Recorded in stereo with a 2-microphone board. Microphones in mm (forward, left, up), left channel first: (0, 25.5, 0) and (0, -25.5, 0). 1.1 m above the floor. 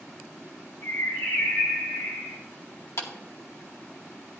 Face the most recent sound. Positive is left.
turn(degrees=70)  # may be behind; listen again after turning